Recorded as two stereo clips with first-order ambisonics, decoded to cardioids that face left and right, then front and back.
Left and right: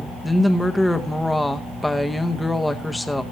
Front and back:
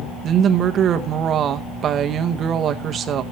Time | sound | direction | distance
0.2 | a woman speaking | 170° left | 0.8 m